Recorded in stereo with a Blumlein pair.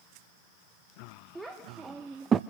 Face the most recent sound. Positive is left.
turn(degrees=-25)